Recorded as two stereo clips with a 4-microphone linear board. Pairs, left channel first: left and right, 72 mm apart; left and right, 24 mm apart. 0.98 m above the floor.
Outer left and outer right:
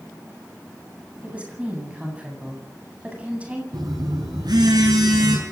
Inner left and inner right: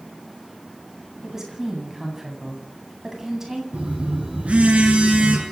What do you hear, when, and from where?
1.2 s a woman speaking: 20° right (ahead or behind), 9 m
3.7 s a phone buzzing: 80° right, 7.5 m